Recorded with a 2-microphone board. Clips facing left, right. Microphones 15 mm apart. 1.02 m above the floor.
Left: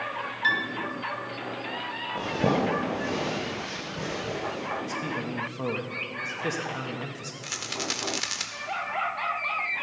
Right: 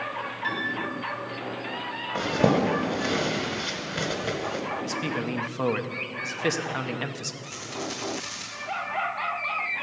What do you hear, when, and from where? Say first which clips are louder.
0.4 s a piano: left 4 dB; 30° left (ahead or behind), 1.5 m
2.1 s a zipper: right 3 dB; 65° right (ahead or behind), 2 m
4.8 s a man speaking: right 2 dB; 40° right (ahead or behind), 0.9 m
7.4 s a rattle: left 3 dB; 40° left (ahead or behind), 1.3 m